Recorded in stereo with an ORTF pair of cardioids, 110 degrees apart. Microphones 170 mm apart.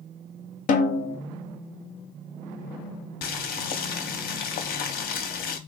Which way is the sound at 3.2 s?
60° left.